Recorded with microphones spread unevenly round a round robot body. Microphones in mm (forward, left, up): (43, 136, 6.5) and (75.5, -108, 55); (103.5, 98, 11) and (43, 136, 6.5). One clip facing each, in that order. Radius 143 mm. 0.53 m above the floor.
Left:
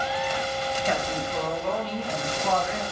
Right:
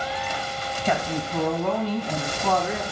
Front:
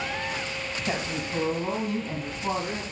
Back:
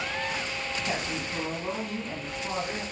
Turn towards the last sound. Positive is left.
turn(degrees=-100)